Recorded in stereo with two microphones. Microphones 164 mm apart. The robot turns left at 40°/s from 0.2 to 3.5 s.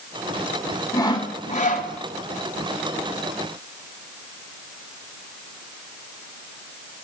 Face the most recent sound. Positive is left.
turn(degrees=55)